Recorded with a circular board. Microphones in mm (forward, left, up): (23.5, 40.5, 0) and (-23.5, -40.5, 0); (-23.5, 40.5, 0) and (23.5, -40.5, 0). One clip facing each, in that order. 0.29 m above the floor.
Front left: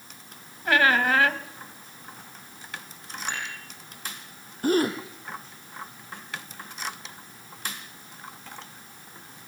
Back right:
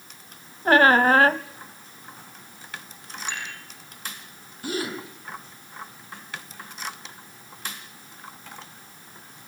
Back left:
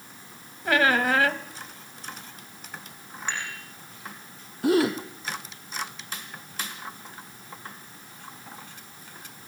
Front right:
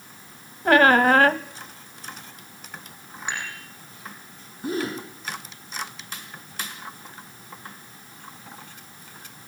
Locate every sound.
0.7 s a squeak: 85° right, 0.8 m
3.3 s dishes clattering: 15° left, 10 m
4.6 s a gasp: 100° left, 3.5 m